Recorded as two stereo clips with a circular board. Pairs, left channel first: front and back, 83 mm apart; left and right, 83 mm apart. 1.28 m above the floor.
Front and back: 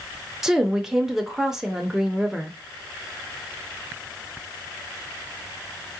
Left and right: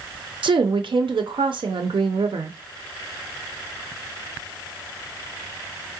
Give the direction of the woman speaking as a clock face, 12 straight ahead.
3 o'clock.